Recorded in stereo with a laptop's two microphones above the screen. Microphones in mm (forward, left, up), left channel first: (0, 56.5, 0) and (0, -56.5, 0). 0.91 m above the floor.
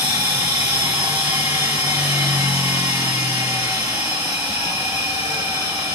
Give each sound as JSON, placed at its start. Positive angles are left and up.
{"t": 0.0, "sound": "a machine running", "side_deg": -40, "distance_m": 1.7}